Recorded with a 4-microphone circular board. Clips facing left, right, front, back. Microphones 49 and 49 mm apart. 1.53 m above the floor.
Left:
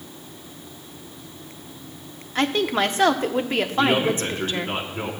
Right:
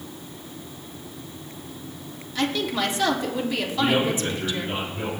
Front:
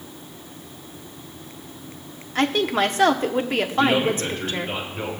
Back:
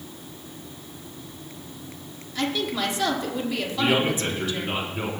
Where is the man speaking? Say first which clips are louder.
Left 2 dB, front 2 dB; 105° left, 4 m.